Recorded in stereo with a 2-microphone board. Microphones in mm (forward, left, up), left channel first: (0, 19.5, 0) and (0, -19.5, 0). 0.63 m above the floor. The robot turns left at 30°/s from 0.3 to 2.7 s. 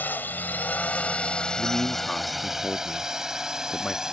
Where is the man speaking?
30° left; by 4.1 s 5° right.